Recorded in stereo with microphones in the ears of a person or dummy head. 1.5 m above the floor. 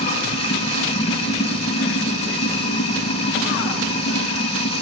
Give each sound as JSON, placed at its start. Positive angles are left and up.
{"t": 0.0, "sound": "running water", "side_deg": 30, "distance_m": 2.0}